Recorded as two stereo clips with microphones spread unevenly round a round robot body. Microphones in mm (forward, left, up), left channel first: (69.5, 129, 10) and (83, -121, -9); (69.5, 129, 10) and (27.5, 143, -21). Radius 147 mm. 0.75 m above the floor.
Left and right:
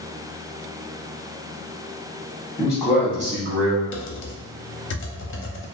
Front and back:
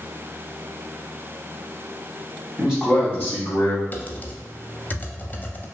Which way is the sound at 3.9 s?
50° left.